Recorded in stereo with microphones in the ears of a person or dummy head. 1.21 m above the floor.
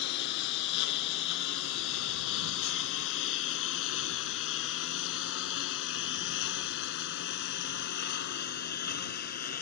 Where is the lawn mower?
70° left (ahead or behind); by 9.6 s 55° left (ahead or behind).